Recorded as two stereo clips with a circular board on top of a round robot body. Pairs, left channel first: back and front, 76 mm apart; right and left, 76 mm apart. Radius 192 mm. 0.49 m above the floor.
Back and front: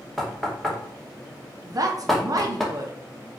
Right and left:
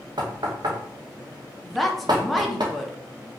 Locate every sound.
0.2 s knocking: 95° left, 1.0 m
1.6 s a woman speaking: straight ahead, 1.0 m